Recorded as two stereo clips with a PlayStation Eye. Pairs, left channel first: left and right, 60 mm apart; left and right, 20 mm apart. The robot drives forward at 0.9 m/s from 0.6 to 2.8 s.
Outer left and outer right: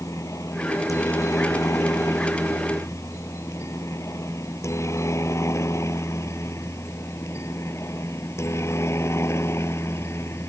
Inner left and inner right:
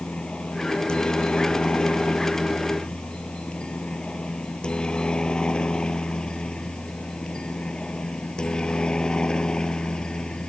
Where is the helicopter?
60° left (ahead or behind); by 10.5 s 45° left (ahead or behind).